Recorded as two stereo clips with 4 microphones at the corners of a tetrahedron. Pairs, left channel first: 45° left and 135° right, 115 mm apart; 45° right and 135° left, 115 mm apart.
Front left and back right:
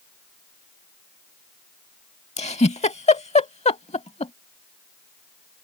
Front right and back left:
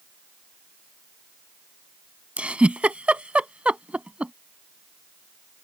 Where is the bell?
No bell in this recording.